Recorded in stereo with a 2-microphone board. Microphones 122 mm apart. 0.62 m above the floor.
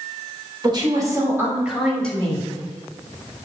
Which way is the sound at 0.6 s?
40° right (ahead or behind).